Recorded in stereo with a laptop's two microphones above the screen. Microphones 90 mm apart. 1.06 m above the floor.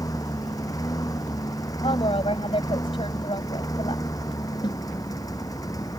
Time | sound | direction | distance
0.0 | a lawn mower | 40° left (ahead or behind) | ?
1.8 | a woman speaking | 85° left | ?
4.6 | a snare drum | 55° left (ahead or behind) | ?